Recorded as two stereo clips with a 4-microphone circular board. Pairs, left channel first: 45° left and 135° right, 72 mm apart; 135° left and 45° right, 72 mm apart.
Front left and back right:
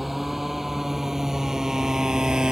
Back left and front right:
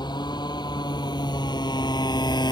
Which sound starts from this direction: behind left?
A motorcycle, at 0.0 s.